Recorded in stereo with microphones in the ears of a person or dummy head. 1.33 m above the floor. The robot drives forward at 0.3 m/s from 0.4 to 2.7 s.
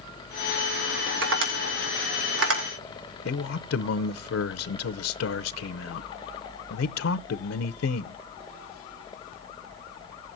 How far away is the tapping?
About 3.5 m.